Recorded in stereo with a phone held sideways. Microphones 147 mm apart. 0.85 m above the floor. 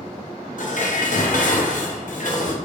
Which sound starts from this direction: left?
Dishes clattering, at 0.6 s.